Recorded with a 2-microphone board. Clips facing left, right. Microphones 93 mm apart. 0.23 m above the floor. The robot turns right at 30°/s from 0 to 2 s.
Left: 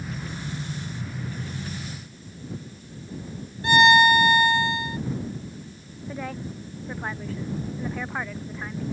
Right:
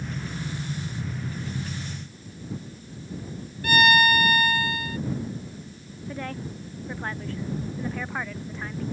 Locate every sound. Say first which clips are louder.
3.6 s a violin: left 4 dB; 25° left (ahead or behind)
6.1 s a woman speaking: left 1 dB; 5° left (ahead or behind)